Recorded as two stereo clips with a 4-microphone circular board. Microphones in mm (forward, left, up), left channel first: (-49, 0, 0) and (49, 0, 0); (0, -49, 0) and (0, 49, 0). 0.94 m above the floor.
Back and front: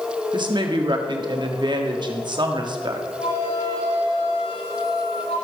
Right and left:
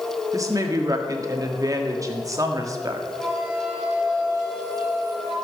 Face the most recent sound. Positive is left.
turn(degrees=180)